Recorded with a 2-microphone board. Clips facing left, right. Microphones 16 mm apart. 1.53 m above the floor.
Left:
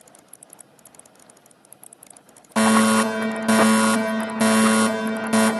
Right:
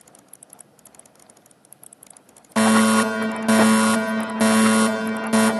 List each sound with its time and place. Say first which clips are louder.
2.6 s a fire alarm: even; 10° right (ahead or behind), 0.6 m